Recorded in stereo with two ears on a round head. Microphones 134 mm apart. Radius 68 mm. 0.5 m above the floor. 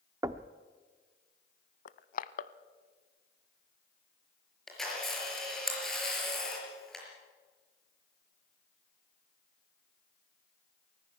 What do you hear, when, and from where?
0.2 s knocking: 20° right (ahead or behind), 0.6 m
1.9 s crushing: 55° left (ahead or behind), 0.6 m
4.7 s a camera shutter: centre (ahead or behind), 5 m